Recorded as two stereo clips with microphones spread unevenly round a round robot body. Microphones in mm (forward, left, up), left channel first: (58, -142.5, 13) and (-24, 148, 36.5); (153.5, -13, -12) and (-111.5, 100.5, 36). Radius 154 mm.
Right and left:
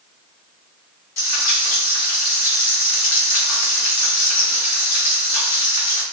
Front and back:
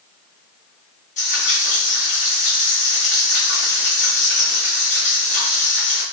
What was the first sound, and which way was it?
Frying, 80° right.